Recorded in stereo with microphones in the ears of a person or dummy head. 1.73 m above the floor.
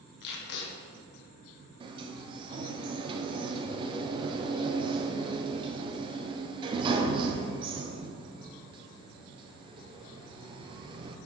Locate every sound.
0.2 s tape being pulled: 70° left (ahead or behind), 1.2 m
1.8 s a sliding door: 30° right (ahead or behind), 0.6 m